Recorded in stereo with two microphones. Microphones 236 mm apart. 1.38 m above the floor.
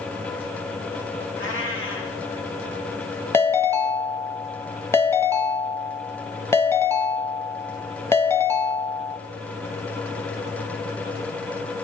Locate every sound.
1.4 s a cat meowing: 60° left (ahead or behind), 3 m
3.3 s a ringtone: 10° left (ahead or behind), 0.9 m